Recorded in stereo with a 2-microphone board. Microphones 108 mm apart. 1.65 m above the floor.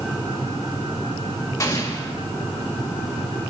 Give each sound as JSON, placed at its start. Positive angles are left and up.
{"t": 1.6, "sound": "an explosion", "side_deg": 30, "distance_m": 1.9}